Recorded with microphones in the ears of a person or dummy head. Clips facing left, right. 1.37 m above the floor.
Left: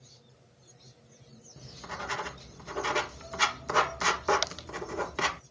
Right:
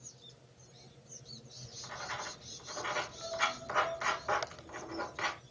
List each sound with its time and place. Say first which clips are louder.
1.6 s writing: left 7 dB; 65° left (ahead or behind), 0.9 m